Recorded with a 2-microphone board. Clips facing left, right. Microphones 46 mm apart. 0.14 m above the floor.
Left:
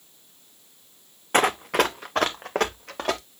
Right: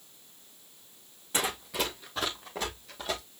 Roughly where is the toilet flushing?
I don't hear a toilet flushing.